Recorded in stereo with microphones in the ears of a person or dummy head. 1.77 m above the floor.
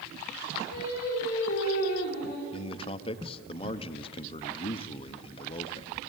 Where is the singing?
45° left (ahead or behind), 6.5 m.